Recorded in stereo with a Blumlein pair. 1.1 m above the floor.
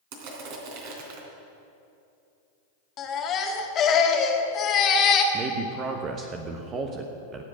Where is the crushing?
50° right, 3 m.